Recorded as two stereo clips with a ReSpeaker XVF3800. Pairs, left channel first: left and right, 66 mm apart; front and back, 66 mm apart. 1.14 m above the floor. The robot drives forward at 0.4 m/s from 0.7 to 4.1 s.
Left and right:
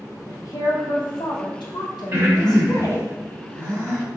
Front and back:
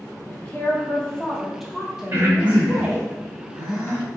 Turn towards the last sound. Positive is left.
turn(degrees=-140)